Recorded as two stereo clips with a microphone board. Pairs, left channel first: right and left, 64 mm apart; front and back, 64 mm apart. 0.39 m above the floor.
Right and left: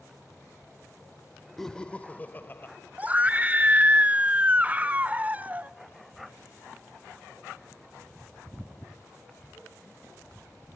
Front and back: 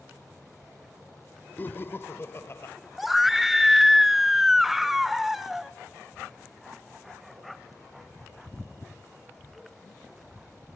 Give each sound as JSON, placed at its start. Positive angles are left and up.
{"t": 1.6, "sound": "laughter", "azimuth_deg": -10, "distance_m": 0.9}
{"t": 3.0, "sound": "a scream", "azimuth_deg": 95, "distance_m": 0.8}